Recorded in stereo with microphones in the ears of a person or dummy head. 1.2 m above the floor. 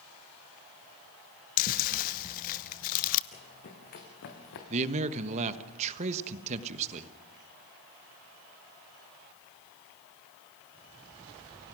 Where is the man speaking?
40° right (ahead or behind), 1.1 m.